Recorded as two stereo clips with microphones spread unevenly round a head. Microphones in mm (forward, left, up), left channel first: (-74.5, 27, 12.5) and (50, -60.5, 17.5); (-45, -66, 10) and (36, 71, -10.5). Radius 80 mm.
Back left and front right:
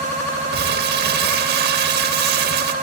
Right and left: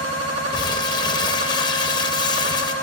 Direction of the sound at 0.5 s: 55° right.